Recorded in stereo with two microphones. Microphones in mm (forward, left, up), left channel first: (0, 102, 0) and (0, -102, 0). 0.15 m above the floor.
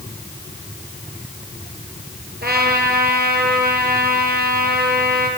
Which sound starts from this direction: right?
A trumpet, at 2.4 s.